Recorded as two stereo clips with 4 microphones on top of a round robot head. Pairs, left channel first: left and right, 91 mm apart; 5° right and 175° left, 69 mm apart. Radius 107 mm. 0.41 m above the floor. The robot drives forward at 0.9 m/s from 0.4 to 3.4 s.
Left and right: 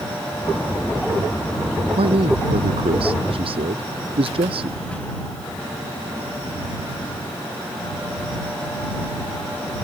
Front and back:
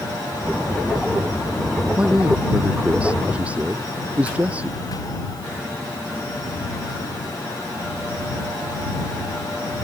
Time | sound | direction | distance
2.0 | a man speaking | 105° right | ?